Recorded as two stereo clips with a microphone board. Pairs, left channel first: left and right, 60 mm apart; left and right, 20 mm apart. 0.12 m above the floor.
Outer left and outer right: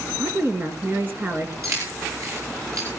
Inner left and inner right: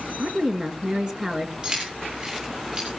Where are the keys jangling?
55° right (ahead or behind), 9 m.